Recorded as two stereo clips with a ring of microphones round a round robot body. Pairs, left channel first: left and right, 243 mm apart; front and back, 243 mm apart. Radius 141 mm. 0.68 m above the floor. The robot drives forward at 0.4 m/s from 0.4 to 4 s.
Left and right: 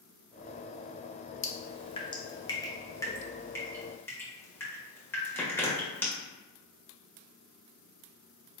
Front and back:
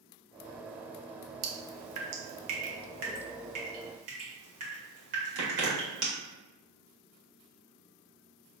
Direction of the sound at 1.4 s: 155° left.